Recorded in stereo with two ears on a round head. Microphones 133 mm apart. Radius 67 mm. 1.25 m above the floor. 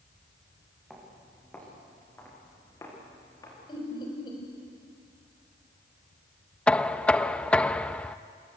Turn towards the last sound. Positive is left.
turn(degrees=5)  # may be behind; listen again after turning